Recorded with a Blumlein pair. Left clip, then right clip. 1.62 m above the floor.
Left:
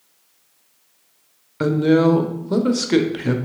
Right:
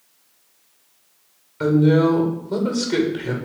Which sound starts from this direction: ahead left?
A woman speaking, at 1.6 s.